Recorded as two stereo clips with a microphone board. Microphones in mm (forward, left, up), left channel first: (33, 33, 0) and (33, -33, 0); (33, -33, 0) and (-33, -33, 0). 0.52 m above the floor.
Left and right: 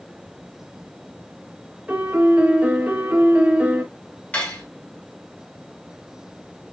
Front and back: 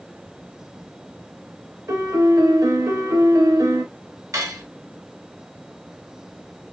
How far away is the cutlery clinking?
About 1.1 m.